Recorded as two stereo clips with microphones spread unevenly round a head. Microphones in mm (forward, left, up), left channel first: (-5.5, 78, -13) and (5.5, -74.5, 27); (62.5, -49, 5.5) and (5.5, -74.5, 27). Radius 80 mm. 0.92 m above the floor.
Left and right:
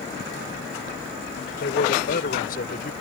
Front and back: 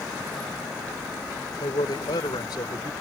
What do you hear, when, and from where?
1.6 s a man speaking: 60° left